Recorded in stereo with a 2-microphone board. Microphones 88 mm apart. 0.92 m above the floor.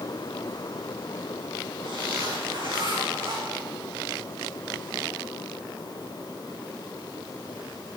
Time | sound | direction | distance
1.8 | a zipper | 85° right | 6 m